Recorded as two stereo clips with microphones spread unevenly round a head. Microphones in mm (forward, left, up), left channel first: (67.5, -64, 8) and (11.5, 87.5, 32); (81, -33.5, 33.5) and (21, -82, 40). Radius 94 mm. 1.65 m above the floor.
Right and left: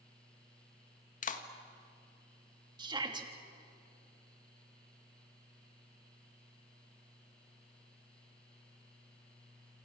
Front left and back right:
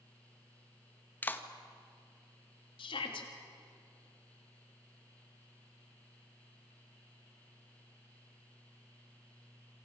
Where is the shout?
50° left, 3.5 m.